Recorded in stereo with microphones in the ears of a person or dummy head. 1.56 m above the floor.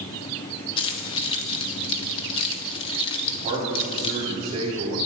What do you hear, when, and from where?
0.8 s keys jangling: 35° left (ahead or behind), 1.4 m
3.2 s a man speaking: 30° right (ahead or behind), 5 m